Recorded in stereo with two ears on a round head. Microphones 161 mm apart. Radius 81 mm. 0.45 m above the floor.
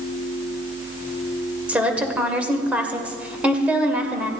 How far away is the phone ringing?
I don't hear a phone ringing.